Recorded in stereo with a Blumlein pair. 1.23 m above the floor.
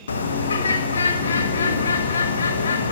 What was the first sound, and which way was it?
A bird, 70° left.